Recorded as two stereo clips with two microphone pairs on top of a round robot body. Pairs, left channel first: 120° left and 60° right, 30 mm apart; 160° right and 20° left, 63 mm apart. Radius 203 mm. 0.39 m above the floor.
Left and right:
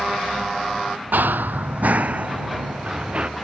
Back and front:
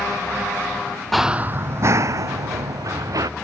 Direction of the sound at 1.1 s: 80° right.